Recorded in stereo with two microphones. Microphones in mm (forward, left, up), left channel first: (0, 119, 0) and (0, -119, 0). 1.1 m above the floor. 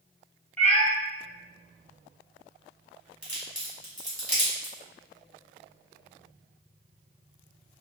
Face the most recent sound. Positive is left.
turn(degrees=30)  # may be behind; listen again after turning